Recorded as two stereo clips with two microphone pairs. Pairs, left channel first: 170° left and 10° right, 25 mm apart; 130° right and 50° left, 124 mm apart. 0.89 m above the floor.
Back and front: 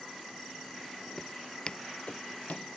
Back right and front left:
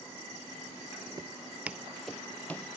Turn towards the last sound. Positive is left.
turn(degrees=155)